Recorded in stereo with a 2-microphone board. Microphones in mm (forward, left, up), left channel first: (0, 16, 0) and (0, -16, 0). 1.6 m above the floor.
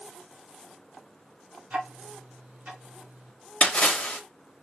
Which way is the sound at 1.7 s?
50° right (ahead or behind).